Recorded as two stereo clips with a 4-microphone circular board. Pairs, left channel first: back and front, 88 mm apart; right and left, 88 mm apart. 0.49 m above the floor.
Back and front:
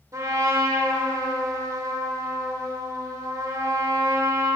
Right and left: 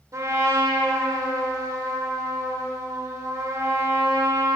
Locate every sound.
0.1 s a trumpet: 45° left, 1.3 m